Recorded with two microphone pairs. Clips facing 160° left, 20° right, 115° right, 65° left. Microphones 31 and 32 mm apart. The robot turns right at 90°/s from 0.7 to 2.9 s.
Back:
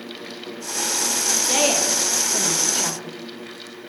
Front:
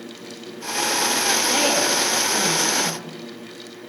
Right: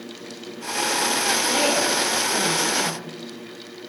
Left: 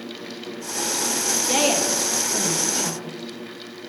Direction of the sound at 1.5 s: 95° left.